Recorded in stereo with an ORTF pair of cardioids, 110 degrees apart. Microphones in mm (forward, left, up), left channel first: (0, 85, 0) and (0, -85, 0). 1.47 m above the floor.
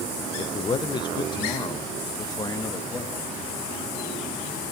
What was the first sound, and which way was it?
A man speaking, 30° left.